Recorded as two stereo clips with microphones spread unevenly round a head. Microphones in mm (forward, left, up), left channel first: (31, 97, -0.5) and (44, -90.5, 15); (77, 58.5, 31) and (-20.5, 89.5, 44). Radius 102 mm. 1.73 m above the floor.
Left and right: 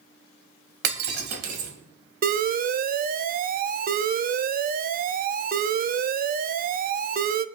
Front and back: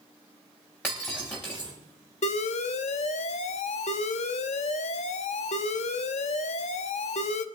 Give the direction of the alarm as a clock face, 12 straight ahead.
1 o'clock.